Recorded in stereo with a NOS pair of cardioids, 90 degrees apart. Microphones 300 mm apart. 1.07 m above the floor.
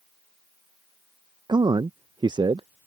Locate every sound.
1.5 s a man speaking: 15° right